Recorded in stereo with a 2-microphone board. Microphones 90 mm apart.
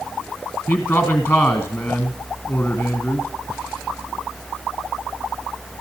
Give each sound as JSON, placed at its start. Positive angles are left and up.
{"t": 0.7, "sound": "a man speaking", "side_deg": 10, "distance_m": 1.9}